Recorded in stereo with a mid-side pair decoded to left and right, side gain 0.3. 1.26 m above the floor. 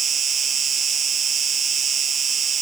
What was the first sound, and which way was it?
An insect, 60° right.